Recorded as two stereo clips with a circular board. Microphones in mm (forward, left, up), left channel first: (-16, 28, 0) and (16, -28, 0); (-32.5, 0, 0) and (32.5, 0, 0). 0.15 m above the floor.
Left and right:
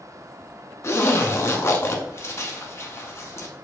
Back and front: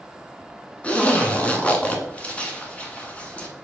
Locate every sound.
0.8 s a zipper: 120° left, 0.8 m